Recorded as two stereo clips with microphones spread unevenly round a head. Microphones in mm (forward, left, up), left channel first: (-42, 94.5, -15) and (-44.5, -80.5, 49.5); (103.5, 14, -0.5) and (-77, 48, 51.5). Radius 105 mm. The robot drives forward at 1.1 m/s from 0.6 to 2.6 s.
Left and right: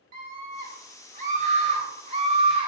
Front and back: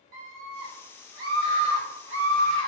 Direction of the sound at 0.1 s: 135° right.